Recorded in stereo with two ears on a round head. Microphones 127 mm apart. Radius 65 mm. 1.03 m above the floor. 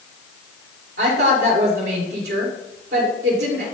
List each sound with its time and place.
1.0 s a woman speaking: 75° right (ahead or behind), 3.5 m